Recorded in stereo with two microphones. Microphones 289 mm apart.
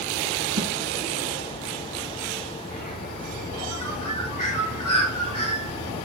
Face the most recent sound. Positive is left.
turn(degrees=85)